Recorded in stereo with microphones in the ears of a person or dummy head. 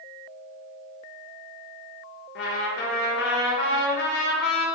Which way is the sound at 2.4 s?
65° left (ahead or behind).